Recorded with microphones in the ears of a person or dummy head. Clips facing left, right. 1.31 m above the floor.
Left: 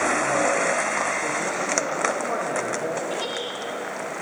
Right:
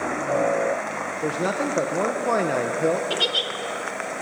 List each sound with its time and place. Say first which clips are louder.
1.2 s a man speaking: right 3 dB; 70° right (ahead or behind), 1.1 m
3.1 s a giggle: right 1 dB; 45° right (ahead or behind), 1.7 m